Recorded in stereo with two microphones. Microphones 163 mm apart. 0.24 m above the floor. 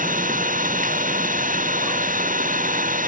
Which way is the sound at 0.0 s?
55° right (ahead or behind).